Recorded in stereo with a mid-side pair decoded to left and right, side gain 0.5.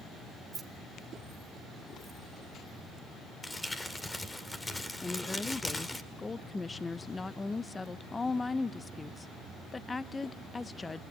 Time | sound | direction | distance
0.5 | keys jangling | 35° right | 2.5 m
3.4 | crumpling | 20° left | 2 m
5.0 | a woman speaking | 25° left | 0.9 m